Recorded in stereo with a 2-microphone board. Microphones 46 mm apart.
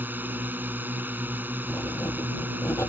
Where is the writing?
85° left.